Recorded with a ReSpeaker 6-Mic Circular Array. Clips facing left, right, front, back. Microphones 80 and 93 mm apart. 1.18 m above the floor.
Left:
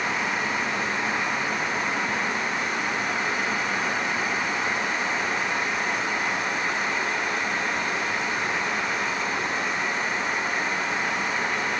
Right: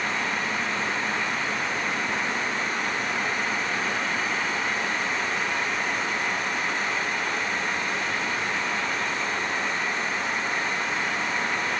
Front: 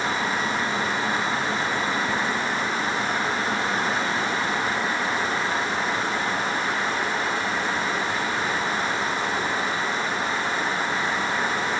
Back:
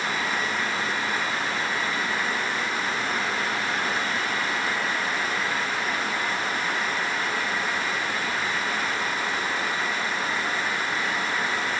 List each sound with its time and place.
Only background noise.